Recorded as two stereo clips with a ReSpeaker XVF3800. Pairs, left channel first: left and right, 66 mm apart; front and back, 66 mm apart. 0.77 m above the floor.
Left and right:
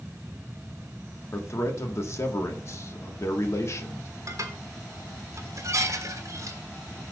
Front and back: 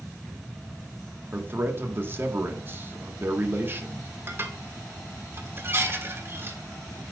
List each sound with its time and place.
1.3 s a man speaking: 130° left, 1.5 m
4.3 s dishes clattering: 125° right, 1.2 m